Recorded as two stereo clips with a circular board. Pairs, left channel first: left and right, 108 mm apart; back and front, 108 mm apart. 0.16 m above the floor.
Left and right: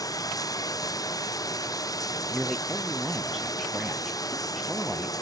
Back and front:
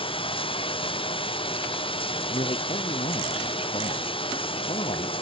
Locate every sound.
0.0 s running water: 145° left
2.3 s a man speaking: straight behind